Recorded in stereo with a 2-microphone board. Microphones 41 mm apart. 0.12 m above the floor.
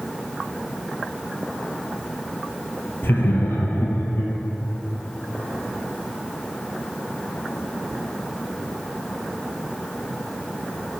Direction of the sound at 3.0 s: 55° left (ahead or behind).